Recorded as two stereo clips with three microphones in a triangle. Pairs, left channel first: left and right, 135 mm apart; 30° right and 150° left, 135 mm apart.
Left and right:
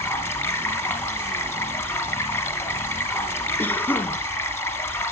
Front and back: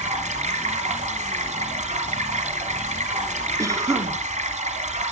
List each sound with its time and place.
0.0 s running water: 160° left, 1.9 m
3.6 s a cough: 140° left, 1.1 m